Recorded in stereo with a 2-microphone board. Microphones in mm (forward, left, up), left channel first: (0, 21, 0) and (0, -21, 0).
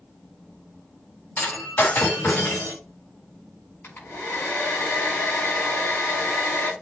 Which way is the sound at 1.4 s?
50° left (ahead or behind).